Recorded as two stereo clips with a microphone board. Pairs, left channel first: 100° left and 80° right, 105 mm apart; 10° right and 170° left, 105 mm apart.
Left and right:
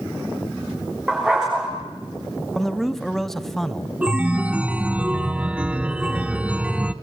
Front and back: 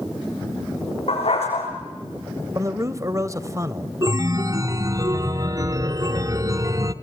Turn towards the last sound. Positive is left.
turn(degrees=-150)